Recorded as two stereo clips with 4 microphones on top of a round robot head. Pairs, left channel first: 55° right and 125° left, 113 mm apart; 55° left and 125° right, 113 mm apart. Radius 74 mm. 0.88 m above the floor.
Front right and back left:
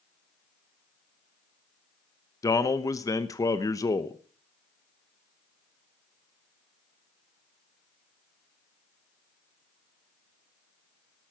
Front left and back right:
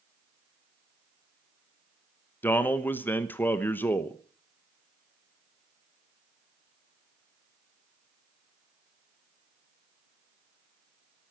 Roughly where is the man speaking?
Ahead.